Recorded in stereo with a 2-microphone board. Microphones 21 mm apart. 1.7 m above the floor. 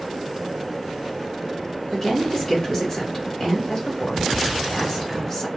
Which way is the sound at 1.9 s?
30° left (ahead or behind).